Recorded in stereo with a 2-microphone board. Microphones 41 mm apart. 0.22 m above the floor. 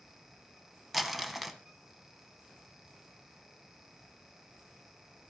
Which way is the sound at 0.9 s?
5° right (ahead or behind).